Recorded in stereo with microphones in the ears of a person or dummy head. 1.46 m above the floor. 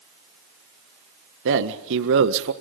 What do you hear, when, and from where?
1.4 s a man speaking: 70° right (ahead or behind), 1.6 m